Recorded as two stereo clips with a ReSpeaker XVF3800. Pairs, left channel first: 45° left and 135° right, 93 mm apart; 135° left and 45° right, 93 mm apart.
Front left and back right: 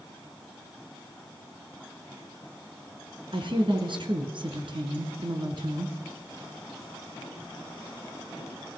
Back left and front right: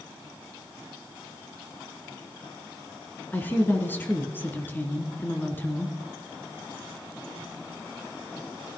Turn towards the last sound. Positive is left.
turn(degrees=-155)